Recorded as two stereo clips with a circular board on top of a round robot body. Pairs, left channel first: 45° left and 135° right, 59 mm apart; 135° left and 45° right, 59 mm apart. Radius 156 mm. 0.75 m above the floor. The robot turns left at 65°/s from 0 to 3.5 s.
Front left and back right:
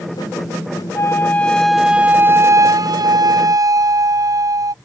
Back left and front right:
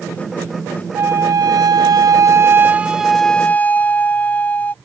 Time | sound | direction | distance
0.9 | a flute | 5° left | ?